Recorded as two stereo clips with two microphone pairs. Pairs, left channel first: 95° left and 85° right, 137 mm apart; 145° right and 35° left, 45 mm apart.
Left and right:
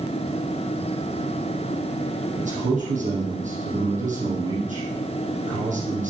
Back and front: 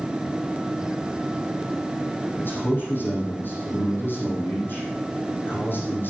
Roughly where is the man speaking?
Right.